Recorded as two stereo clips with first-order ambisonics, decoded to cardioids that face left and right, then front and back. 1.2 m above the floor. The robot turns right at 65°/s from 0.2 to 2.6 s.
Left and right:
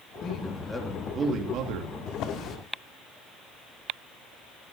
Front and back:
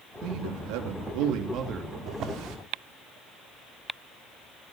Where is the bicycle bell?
No bicycle bell in this recording.